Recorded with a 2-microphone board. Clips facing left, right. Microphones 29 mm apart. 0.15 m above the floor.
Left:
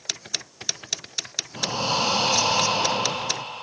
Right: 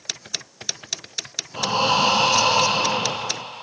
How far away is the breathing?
About 1.4 m.